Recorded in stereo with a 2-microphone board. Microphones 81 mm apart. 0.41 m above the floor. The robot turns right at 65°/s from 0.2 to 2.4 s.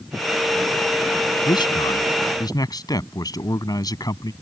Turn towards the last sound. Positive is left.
turn(degrees=125)